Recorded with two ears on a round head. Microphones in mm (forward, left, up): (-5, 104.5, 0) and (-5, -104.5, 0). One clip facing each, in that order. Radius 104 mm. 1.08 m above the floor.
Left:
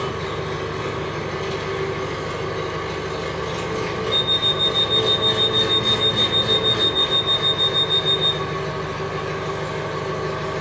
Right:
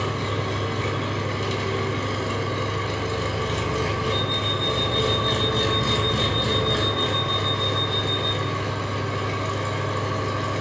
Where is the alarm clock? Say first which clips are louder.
Left 1 dB; 40° left (ahead or behind), 0.6 m.